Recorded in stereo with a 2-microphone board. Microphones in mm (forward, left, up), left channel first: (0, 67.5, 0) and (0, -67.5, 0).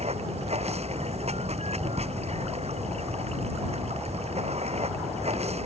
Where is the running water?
50° right (ahead or behind).